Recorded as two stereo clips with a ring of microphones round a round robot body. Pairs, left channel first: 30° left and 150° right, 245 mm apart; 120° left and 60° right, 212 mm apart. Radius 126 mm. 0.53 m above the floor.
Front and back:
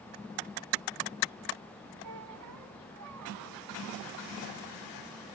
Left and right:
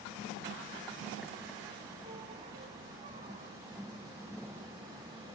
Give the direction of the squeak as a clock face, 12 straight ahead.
4 o'clock.